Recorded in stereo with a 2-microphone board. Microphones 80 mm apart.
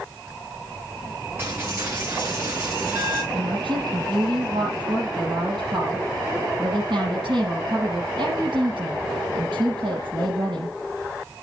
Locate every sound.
1.4 s a dropped coin: 30° right (ahead or behind), 4 m
3.3 s a woman speaking: 75° right (ahead or behind), 7 m